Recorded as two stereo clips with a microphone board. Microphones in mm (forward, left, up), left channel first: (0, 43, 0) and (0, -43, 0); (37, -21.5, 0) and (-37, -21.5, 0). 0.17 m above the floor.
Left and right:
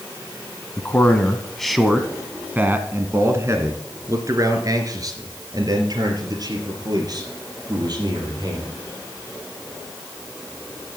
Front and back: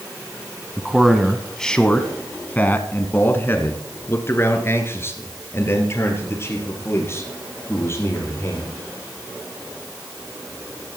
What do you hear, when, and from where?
0.8 s a man speaking: 110° left, 1.2 m; by 8.8 s 55° right, 4.5 m